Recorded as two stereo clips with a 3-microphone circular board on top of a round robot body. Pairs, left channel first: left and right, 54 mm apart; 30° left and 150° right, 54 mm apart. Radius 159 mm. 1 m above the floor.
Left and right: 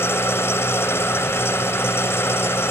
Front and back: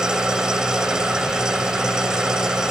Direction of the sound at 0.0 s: 130° left.